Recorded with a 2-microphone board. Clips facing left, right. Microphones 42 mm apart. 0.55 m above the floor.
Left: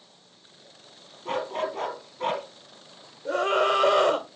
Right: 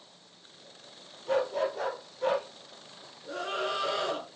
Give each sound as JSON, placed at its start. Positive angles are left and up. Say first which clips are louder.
{"t": 1.2, "sound": "a dog barking", "louder": "right 1 dB", "side_deg": 45, "distance_m": 3.5}
{"t": 3.2, "sound": "a scream", "louder": "left 10 dB", "side_deg": 60, "distance_m": 1.7}